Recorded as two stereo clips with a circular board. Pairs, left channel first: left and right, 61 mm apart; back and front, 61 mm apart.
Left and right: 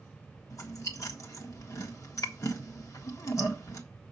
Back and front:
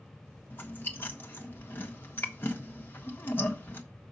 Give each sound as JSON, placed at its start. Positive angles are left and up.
{"t": 0.5, "sound": "chewing", "azimuth_deg": 125, "distance_m": 1.6}